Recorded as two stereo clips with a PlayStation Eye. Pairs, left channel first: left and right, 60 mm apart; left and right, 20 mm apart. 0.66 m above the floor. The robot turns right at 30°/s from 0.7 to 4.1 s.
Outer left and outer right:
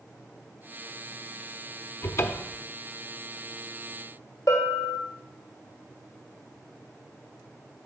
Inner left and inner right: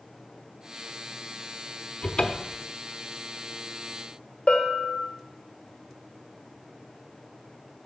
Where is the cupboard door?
55° left (ahead or behind), 0.6 m; by 2.6 s 40° left (ahead or behind), 0.6 m.